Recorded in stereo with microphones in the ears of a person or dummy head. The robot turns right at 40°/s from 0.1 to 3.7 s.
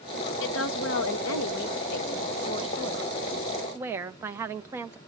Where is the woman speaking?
60° left, 0.9 m; by 5.0 s 165° right, 0.9 m.